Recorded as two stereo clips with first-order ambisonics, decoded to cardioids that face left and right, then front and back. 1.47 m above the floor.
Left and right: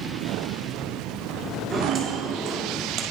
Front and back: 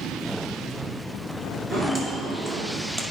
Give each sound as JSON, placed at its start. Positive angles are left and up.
{"t": 1.7, "sound": "footsteps", "azimuth_deg": -160, "distance_m": 1.5}